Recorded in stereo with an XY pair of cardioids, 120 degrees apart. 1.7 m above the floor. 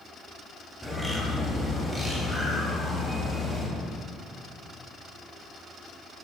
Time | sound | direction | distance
0.8 | a bird | 5° left | 0.7 m